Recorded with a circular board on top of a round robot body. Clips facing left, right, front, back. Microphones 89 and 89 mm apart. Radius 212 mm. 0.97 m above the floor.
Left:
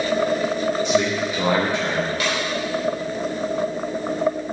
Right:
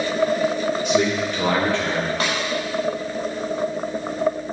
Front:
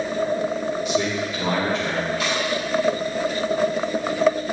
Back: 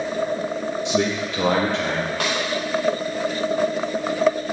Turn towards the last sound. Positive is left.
turn(degrees=-145)